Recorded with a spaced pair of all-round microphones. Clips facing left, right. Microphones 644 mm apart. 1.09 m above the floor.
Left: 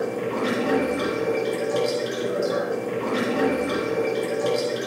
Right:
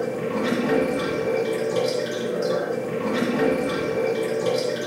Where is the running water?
45° right (ahead or behind), 3.5 m.